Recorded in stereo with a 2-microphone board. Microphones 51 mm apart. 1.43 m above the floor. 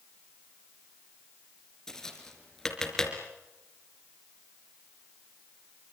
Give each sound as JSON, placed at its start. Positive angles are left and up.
{"t": 1.9, "sound": "tapping", "side_deg": 15, "distance_m": 3.5}